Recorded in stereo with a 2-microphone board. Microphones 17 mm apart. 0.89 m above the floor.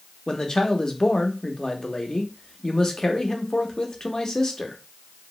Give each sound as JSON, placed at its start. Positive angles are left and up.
{"t": 0.3, "sound": "a man speaking", "side_deg": 40, "distance_m": 0.7}